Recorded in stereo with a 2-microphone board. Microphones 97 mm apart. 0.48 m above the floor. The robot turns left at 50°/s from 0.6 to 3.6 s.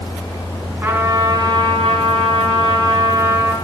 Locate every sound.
0.8 s a trumpet: 25° right, 1.8 m; by 3.5 s 160° right, 1.8 m